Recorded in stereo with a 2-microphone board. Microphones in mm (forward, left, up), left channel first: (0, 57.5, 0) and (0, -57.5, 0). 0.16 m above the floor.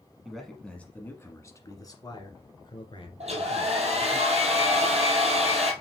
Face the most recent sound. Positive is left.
turn(degrees=-70)  # may be behind; listen again after turning